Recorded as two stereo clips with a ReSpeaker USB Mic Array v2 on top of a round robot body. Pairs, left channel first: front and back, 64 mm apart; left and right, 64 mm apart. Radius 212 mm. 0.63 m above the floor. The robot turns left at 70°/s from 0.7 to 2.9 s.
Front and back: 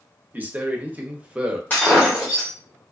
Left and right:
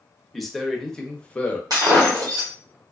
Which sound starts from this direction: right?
Breaking glass, at 1.7 s.